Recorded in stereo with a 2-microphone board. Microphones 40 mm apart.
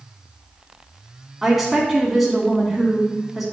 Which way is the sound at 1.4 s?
5° right (ahead or behind).